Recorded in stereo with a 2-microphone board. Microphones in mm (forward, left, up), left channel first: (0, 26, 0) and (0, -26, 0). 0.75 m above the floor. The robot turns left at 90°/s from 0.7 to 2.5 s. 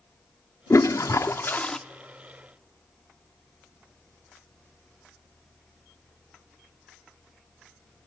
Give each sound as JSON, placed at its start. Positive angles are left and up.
{"t": 0.7, "sound": "a toilet flushing", "azimuth_deg": 115, "distance_m": 0.5}